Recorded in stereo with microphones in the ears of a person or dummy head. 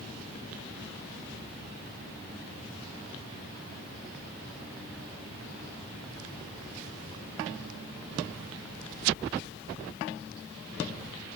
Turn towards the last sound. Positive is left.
No sound to turn to.